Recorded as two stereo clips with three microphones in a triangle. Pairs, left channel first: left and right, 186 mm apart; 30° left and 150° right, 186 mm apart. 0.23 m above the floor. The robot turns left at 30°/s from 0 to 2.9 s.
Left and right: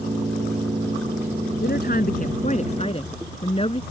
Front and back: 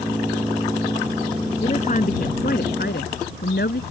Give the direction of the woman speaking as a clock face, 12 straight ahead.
9 o'clock.